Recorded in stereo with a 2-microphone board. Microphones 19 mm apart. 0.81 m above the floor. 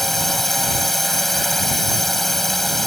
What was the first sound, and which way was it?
A drone, 10° left (ahead or behind).